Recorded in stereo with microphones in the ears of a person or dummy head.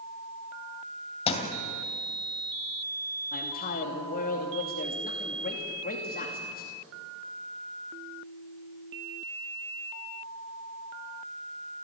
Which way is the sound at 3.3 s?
45° left (ahead or behind).